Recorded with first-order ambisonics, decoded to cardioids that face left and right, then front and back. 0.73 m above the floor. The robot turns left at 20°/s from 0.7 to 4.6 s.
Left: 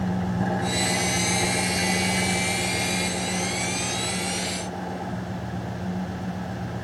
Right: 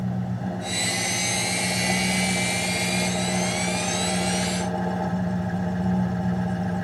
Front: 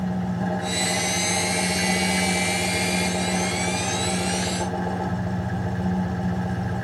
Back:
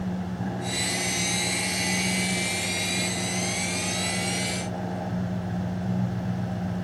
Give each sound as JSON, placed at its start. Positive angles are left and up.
{"t": 0.0, "sound": "an engine running", "azimuth_deg": 65, "distance_m": 1.8}